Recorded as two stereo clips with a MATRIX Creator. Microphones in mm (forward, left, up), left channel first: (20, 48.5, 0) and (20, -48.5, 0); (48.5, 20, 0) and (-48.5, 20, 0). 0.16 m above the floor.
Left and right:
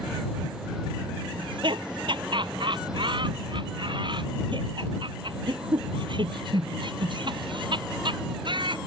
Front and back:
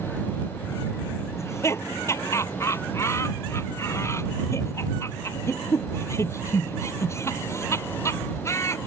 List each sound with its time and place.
1.4 s laughter: 60° right